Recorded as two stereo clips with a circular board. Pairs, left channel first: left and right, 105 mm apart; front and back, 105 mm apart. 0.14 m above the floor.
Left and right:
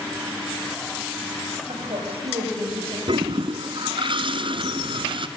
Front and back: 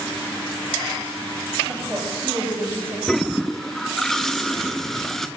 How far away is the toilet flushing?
About 0.8 m.